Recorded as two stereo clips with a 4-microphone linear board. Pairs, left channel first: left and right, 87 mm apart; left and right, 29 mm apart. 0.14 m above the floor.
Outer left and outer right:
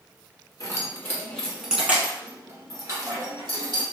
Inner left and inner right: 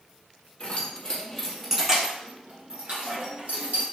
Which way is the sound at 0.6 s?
40° left (ahead or behind).